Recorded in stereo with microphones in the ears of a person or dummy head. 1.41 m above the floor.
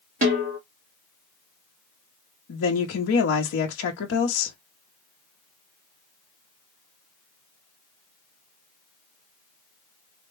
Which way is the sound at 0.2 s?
35° right (ahead or behind).